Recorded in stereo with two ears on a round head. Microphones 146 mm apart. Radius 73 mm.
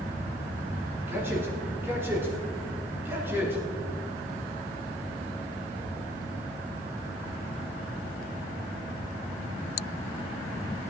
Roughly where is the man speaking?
Centre.